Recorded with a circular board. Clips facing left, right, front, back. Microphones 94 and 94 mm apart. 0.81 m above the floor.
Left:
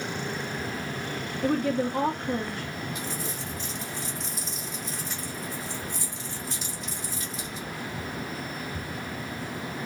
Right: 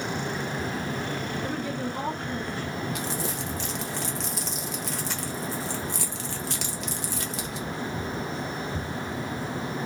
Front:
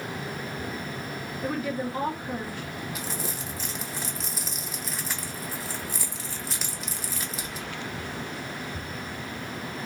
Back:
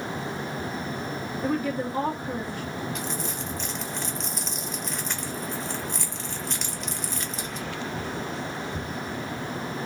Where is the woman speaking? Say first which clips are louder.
Left 5 dB, back 2 dB; 105° left, 1.5 m.